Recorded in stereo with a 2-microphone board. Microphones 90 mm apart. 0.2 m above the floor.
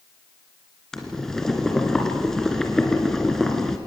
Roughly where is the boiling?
Centre.